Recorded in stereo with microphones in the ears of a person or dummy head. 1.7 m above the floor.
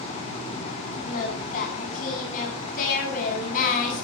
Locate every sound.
1.0 s singing: 55° left (ahead or behind), 8.5 m